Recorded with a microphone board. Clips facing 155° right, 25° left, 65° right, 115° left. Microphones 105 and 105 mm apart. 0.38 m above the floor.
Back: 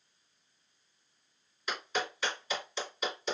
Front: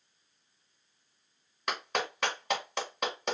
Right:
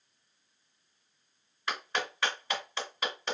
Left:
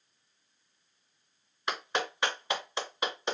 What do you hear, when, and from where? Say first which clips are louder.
1.7 s a clap: front 2 dB, left 2 dB; 45° left, 2 m